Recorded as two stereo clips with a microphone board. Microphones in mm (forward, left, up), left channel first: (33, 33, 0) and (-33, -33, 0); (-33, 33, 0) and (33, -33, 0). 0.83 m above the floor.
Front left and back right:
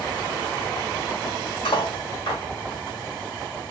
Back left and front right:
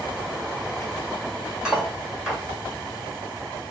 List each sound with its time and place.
1.6 s cutlery clinking: 35° left, 1.8 m